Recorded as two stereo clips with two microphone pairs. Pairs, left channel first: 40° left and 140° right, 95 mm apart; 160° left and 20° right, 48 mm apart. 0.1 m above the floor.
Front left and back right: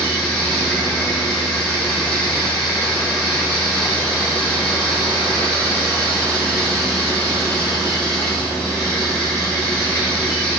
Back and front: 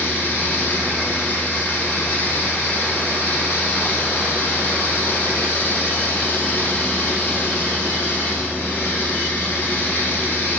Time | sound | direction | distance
0.0 | running water | 125° left | 1.8 m